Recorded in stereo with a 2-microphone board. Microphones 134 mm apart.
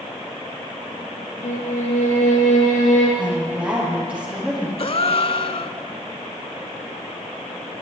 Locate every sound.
1.4 s a violin: 75° left (ahead or behind), 3.5 m
3.2 s a woman speaking: 10° right (ahead or behind), 5 m
4.8 s a gasp: 50° left (ahead or behind), 0.5 m